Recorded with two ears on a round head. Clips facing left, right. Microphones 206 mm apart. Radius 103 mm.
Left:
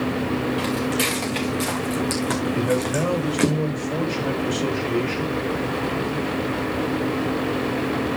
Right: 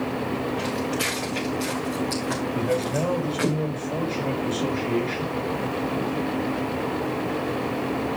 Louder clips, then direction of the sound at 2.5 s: Left 1 dB; 15° left (ahead or behind).